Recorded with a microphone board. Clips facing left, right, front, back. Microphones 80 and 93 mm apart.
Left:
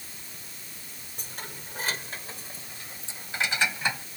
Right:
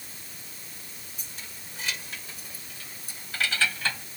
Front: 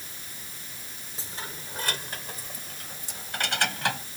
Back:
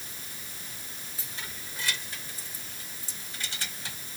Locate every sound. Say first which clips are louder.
1.2 s keys jangling: left 7 dB, front 5 dB; 55° left; by 4.0 s 15° left